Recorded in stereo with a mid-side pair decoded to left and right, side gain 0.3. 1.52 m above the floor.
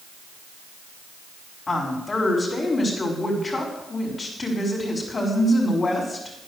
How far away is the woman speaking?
About 5 m.